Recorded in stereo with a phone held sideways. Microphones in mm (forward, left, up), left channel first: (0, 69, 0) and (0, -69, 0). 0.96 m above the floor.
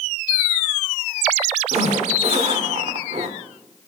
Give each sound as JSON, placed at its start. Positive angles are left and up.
{"t": 1.7, "sound": "a zipper", "side_deg": -50, "distance_m": 2.0}